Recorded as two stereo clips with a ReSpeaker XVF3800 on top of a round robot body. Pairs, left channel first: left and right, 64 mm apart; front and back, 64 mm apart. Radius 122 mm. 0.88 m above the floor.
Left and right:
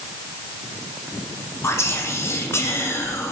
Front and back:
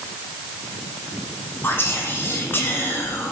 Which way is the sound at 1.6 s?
50° left.